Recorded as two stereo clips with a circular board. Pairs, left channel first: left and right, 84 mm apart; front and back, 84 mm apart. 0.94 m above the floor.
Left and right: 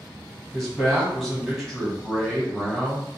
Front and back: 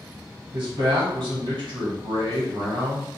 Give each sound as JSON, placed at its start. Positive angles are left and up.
{"t": 0.5, "sound": "a man speaking", "azimuth_deg": 180, "distance_m": 1.2}